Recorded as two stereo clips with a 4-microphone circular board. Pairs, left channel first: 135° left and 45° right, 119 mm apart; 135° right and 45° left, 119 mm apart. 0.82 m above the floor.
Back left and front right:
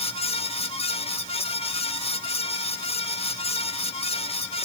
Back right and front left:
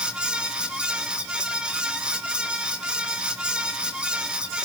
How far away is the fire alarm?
I don't hear a fire alarm.